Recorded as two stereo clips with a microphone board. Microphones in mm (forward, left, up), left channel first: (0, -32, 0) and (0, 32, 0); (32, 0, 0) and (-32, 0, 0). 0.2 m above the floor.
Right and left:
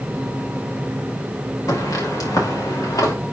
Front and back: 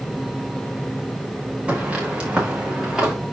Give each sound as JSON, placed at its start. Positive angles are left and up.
{"t": 1.7, "sound": "footsteps", "azimuth_deg": -110, "distance_m": 4.0}